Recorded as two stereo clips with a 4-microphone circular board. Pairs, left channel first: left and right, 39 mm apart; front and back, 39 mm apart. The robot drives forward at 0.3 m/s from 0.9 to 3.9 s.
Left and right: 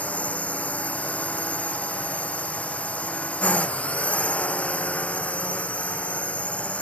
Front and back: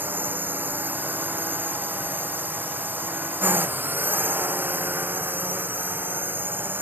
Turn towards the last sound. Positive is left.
turn(degrees=145)